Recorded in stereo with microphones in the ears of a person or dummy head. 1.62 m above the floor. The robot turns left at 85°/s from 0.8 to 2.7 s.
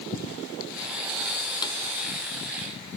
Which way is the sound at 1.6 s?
25° left (ahead or behind).